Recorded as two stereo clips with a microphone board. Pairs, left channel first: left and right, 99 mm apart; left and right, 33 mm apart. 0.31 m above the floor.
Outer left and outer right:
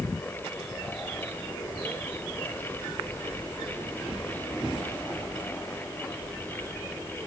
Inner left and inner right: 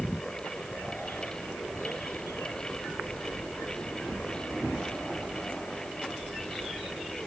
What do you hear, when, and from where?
Only background noise.